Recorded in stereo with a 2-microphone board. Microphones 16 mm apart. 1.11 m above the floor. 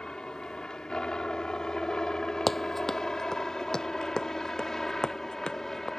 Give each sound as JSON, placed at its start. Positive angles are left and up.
{"t": 0.0, "sound": "a helicopter", "side_deg": 50}
{"t": 2.5, "sound": "running footsteps", "side_deg": 5}